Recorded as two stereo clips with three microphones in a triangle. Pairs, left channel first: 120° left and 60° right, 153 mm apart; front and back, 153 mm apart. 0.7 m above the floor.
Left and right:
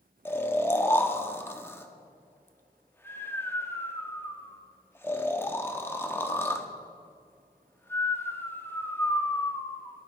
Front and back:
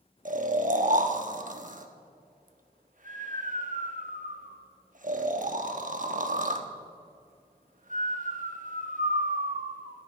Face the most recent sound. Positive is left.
turn(degrees=-170)